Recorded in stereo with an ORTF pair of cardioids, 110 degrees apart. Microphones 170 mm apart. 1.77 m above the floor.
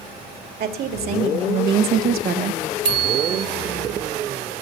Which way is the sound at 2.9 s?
55° right.